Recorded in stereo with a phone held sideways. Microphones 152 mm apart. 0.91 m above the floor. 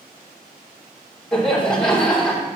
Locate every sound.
1.3 s laughter: 5° left (ahead or behind), 3 m